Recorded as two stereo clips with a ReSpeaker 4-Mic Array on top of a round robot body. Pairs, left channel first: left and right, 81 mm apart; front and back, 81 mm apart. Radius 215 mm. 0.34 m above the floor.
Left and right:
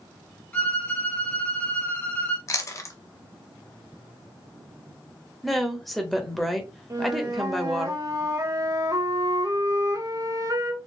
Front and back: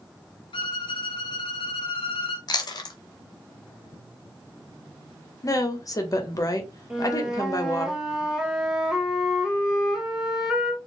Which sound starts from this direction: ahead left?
Chewing, at 2.5 s.